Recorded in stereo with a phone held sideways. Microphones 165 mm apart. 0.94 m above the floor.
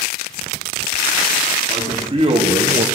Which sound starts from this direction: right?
A man speaking, at 1.7 s.